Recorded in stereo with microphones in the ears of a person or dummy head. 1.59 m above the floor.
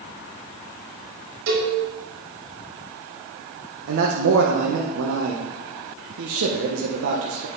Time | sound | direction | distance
1.5 | a cowbell | 80° right | 5 m
3.9 | a man speaking | 80° right | 1.5 m